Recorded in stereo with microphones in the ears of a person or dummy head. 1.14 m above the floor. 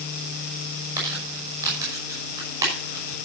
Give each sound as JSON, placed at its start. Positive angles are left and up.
{"t": 1.0, "sound": "crumpling", "side_deg": -20, "distance_m": 5.5}